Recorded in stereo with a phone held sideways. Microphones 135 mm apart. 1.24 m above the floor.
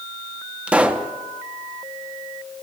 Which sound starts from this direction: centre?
A pop, at 0.7 s.